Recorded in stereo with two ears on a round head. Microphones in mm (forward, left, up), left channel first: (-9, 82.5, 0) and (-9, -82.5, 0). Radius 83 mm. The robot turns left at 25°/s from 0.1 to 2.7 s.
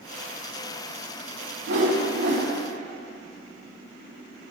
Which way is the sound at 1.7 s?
70° right (ahead or behind).